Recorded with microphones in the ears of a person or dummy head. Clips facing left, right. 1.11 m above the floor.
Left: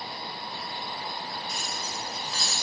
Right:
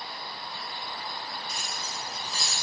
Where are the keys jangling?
Centre (ahead or behind), 2.5 m; by 2.5 s 10° right (ahead or behind), 3.5 m.